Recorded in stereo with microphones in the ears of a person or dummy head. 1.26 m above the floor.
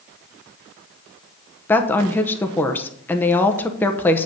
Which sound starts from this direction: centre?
A woman speaking, at 1.7 s.